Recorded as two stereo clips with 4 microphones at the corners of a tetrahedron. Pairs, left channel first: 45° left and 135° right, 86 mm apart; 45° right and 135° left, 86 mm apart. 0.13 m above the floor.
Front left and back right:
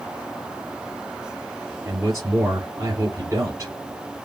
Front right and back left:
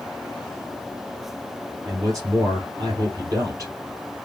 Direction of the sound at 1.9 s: 175° left.